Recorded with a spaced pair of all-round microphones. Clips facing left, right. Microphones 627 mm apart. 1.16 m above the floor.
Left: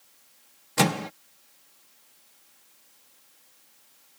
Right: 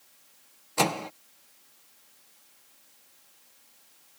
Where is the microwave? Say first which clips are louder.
Left 3 dB; 50° left (ahead or behind).